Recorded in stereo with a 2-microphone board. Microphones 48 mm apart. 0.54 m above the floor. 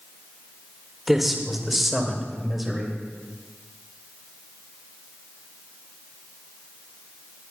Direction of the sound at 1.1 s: 5° right (ahead or behind).